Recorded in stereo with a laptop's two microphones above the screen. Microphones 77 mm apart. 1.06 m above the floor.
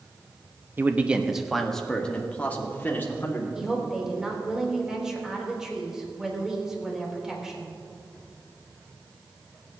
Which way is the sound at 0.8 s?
25° right (ahead or behind).